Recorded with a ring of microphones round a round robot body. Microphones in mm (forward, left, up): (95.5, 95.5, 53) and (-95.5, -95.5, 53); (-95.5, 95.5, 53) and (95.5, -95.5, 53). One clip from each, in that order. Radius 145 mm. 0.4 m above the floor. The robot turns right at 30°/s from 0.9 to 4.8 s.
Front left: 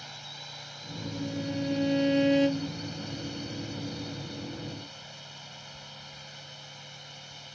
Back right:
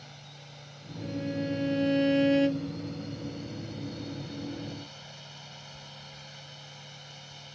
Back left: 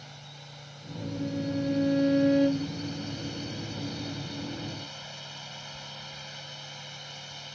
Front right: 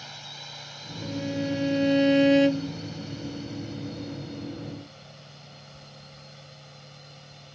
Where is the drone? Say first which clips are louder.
Front left 8 dB, front right 7 dB; 5° left; by 7.5 s 120° left.